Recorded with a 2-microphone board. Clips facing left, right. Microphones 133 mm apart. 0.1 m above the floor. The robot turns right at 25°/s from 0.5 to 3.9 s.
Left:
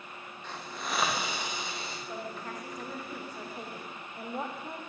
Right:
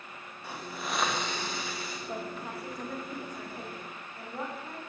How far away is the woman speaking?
About 6.5 m.